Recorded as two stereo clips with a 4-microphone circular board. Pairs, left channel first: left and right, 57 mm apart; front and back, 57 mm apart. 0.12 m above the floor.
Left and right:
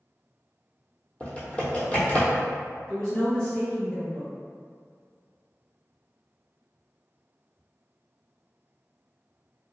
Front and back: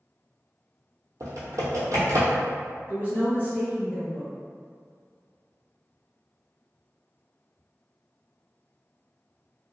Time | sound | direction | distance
1.2 | typing on a keyboard | 155° left | 0.9 m
2.9 | a woman speaking | 20° left | 1.3 m